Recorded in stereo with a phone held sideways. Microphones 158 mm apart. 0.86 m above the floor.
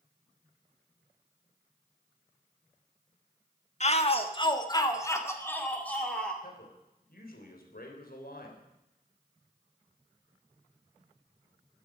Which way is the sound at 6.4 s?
75° left (ahead or behind).